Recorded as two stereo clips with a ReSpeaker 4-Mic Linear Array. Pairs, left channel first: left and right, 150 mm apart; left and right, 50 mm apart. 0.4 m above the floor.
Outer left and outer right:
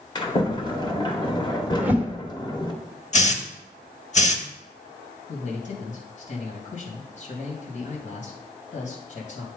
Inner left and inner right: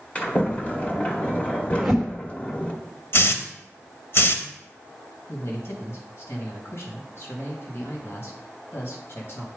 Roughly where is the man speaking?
Left.